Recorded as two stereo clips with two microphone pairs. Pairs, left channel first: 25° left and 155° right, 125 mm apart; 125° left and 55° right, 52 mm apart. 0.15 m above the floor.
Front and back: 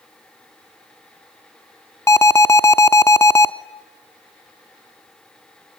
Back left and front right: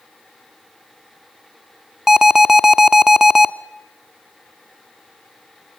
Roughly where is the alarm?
Ahead.